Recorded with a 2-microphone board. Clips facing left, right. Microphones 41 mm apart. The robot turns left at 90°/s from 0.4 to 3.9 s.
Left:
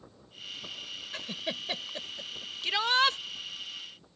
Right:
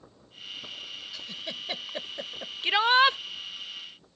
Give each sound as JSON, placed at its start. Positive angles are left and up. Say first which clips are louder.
{"t": 1.1, "sound": "a giggle", "louder": "left 4 dB", "side_deg": 50}
{"t": 2.6, "sound": "a shout", "louder": "right 5 dB", "side_deg": -25}